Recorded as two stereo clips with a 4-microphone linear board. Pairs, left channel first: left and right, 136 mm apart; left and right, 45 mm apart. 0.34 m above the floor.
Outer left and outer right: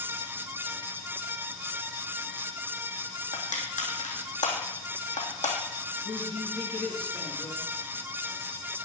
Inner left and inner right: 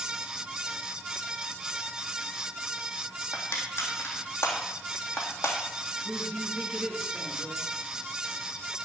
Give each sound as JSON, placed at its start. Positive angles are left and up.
{"t": 3.3, "sound": "crushing", "side_deg": 80, "distance_m": 3.0}
{"t": 6.0, "sound": "a woman speaking", "side_deg": 10, "distance_m": 4.0}